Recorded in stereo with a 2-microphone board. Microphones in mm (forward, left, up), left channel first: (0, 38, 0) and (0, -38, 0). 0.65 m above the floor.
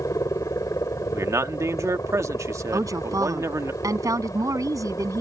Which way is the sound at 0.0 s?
45° left (ahead or behind).